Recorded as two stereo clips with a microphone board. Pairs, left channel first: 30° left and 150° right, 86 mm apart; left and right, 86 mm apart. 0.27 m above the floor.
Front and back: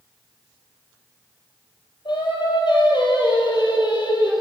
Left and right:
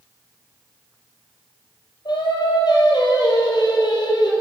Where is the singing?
60° left, 3 m.